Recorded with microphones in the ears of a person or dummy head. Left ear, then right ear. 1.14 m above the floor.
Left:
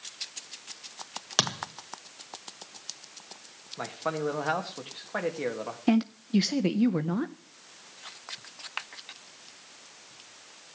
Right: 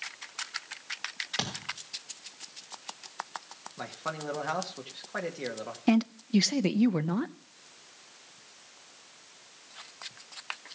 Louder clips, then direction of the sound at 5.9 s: Even; 15° right (ahead or behind).